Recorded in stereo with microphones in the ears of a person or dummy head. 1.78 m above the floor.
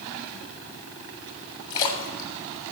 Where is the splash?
20° left (ahead or behind), 1.6 m.